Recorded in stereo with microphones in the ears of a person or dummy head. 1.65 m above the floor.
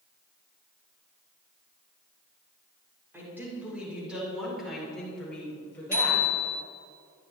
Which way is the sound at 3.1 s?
10° right (ahead or behind).